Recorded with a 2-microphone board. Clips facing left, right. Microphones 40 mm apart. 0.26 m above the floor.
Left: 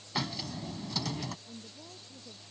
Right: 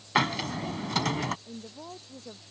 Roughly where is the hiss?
Right.